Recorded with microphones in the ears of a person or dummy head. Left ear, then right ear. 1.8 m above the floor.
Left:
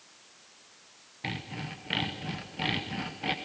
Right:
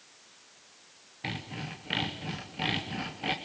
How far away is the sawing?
About 0.9 m.